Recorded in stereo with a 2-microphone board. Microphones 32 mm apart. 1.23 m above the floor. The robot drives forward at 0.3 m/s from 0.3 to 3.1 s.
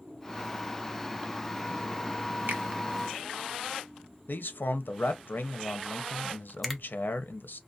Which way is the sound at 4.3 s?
85° left.